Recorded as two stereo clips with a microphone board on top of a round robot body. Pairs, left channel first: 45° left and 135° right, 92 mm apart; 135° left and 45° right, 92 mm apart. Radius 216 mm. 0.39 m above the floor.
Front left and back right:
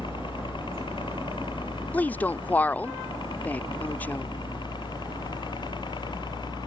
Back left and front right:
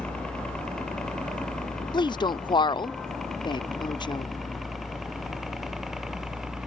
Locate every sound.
0.0 s a helicopter: 55° left; by 6.7 s 40° left
1.9 s a woman speaking: 115° left